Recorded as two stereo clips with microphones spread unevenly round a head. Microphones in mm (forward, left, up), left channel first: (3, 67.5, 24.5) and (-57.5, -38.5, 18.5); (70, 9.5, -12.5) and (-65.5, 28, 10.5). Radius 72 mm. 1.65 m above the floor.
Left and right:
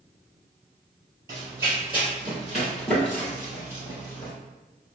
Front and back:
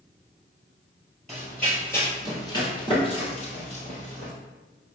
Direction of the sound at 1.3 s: 120° right.